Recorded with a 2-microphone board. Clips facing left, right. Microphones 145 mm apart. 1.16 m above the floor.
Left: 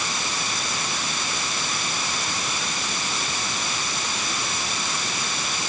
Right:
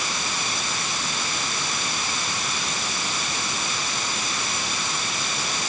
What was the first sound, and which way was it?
Only background noise.